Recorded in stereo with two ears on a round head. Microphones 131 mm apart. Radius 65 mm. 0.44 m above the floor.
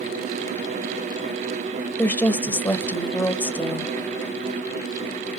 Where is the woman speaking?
15° left (ahead or behind), 1.7 m.